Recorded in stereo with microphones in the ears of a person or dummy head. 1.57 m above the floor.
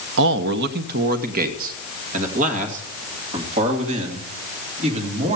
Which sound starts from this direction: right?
A man speaking, at 0.2 s.